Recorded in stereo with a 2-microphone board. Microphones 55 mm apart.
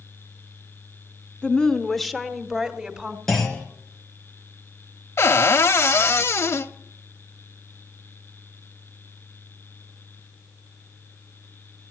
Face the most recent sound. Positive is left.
turn(degrees=55)  # may be behind; listen again after turning